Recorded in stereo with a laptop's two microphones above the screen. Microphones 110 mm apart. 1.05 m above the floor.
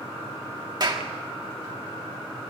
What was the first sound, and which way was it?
A clap, 40° right (ahead or behind).